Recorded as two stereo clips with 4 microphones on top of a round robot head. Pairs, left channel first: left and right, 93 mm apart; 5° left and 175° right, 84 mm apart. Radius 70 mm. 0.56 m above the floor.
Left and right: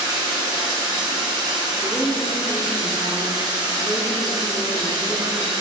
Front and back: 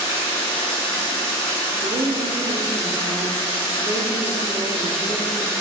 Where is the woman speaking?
175° left, 1.0 m.